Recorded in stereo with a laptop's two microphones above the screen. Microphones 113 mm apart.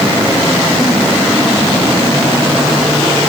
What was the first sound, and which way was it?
Only background noise.